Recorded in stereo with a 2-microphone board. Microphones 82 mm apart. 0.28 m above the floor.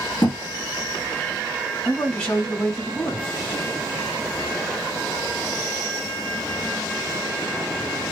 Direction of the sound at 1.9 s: 20° left (ahead or behind).